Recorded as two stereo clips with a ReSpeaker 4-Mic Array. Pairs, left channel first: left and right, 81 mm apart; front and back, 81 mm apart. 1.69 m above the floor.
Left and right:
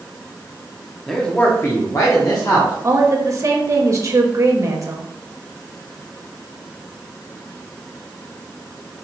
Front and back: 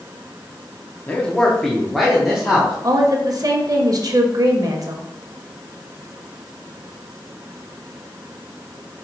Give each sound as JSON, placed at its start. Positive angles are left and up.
{"t": 1.1, "sound": "a man speaking", "azimuth_deg": 5, "distance_m": 0.6}
{"t": 2.8, "sound": "a woman speaking", "azimuth_deg": -140, "distance_m": 0.6}